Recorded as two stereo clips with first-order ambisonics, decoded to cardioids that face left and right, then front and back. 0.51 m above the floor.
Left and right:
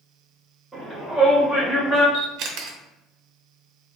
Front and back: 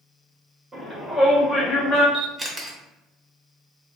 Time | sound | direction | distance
0.7 | a shout | 165° right | 1.0 m
2.1 | a camera shutter | 100° right | 0.5 m